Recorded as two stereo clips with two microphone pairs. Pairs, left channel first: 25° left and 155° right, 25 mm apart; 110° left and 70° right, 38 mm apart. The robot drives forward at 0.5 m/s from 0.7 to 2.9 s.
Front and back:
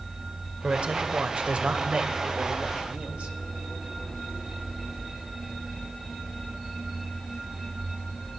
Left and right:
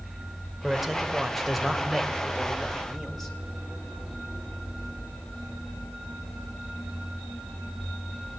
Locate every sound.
0.6 s a man speaking: 155° right, 2.5 m; by 3.4 s 165° right, 3 m